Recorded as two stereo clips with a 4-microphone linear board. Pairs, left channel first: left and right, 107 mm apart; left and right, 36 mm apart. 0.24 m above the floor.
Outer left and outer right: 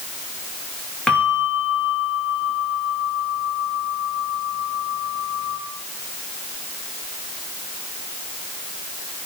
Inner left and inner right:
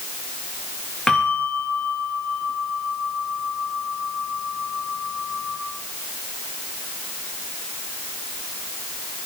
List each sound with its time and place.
1.1 s a bell: 5° left (ahead or behind), 9 m